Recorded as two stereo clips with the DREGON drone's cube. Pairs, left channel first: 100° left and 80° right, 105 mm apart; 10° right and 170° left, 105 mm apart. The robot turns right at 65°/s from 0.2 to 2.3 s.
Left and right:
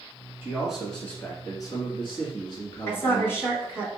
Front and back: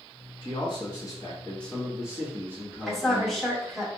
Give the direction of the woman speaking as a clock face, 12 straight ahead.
10 o'clock.